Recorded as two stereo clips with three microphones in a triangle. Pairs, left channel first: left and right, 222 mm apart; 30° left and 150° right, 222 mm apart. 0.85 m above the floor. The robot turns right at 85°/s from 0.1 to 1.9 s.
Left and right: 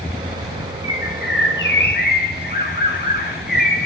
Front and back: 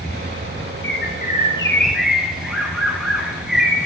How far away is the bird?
About 0.9 m.